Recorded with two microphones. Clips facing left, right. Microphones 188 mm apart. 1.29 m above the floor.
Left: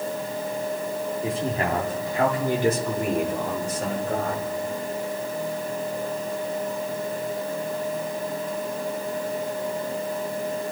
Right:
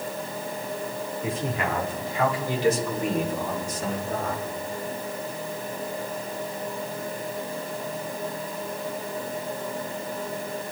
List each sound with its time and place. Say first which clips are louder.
1.2 s a man speaking: left 1 dB; 30° left (ahead or behind), 3 m; by 4.5 s 80° left, 4.5 m